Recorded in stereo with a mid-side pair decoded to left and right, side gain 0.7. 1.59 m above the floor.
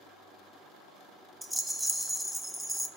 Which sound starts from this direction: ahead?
A rattle, at 1.4 s.